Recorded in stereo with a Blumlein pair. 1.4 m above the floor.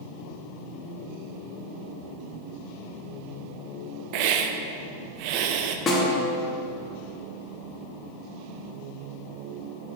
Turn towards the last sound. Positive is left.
turn(degrees=25)